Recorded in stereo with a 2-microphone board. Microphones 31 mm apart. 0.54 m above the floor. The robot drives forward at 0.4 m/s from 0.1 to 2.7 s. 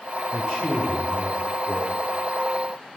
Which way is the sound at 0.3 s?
30° right (ahead or behind).